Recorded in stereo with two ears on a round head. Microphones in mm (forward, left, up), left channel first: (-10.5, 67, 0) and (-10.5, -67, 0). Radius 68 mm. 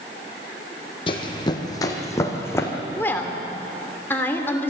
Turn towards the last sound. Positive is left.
turn(degrees=15)  # may be behind; listen again after turning